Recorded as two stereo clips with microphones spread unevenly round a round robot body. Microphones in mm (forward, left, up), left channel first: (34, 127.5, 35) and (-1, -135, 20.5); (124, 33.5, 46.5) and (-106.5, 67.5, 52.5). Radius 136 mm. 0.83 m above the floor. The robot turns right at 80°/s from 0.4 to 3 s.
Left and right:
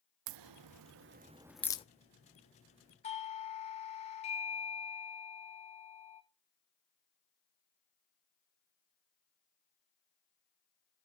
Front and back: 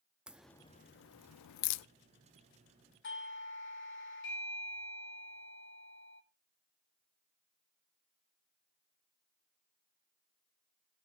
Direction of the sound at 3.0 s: 15° left.